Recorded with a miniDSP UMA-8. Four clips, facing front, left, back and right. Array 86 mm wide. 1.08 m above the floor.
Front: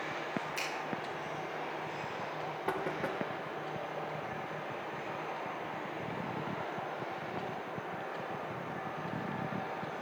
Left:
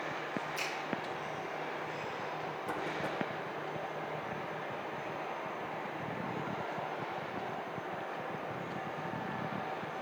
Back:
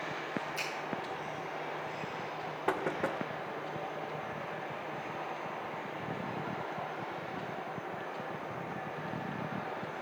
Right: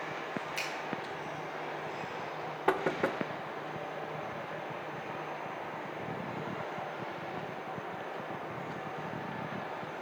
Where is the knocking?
105° right, 0.6 m.